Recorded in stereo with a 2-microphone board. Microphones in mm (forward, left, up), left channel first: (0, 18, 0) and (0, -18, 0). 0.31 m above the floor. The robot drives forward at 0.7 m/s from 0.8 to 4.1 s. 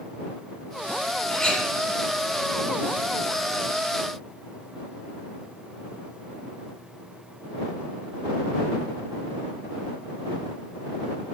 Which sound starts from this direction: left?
A clink, at 1.3 s.